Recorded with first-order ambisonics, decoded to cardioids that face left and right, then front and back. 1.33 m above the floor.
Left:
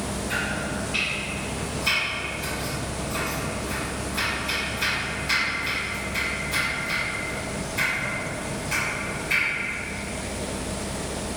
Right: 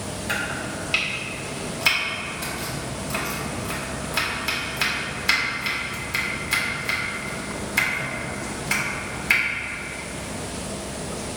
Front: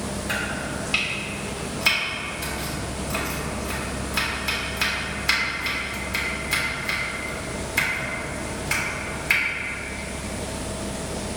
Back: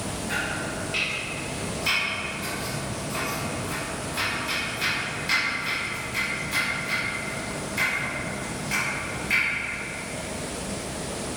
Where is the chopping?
55° right, 1.3 m.